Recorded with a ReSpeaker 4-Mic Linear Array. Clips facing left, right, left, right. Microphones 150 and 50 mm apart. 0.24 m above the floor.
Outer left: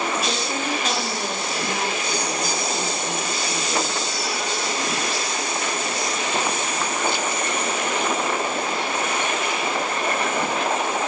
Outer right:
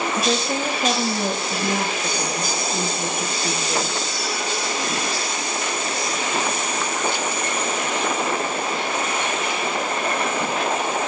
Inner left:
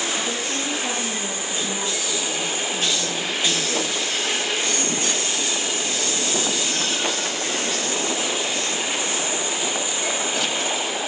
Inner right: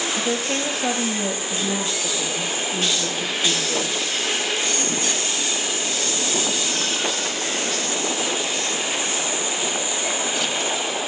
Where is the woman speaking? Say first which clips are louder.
Outer right 4 dB, inner right 3 dB; 65° right (ahead or behind), 5.5 m.